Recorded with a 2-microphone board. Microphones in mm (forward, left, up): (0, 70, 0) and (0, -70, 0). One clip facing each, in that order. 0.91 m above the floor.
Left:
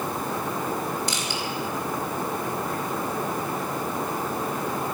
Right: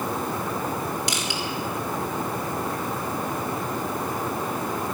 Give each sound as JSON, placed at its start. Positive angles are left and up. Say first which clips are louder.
{"t": 1.1, "sound": "crushing", "louder": "right 1 dB", "side_deg": -80, "distance_m": 3.5}